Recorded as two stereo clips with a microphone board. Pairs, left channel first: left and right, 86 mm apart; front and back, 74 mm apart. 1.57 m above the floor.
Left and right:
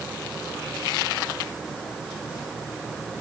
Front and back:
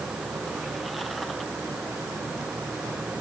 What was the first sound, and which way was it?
Only background noise.